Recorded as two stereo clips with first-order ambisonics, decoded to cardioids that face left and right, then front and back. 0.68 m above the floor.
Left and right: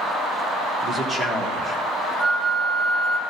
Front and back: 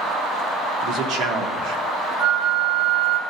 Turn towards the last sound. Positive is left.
turn(degrees=-165)